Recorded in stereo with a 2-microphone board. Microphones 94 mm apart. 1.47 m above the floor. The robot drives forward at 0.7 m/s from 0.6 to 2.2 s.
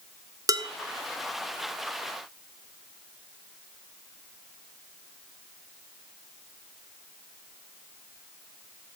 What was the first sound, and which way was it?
Dishes clattering, 40° right (ahead or behind).